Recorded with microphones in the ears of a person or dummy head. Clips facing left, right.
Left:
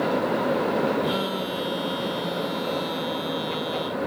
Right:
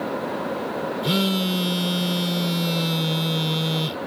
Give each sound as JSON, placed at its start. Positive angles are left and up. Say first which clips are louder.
{"t": 1.0, "sound": "a phone buzzing", "louder": "right 3 dB", "side_deg": -30}